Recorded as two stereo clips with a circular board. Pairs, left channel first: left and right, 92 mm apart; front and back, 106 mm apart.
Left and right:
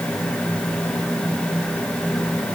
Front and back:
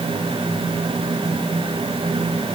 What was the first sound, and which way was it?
Only background noise.